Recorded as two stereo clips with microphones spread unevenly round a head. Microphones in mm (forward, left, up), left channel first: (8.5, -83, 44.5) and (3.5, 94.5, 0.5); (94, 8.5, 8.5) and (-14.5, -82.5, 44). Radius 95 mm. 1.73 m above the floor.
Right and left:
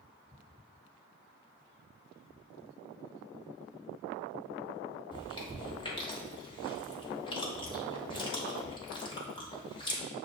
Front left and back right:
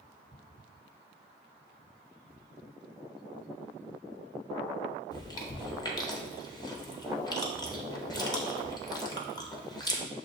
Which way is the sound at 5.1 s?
20° right.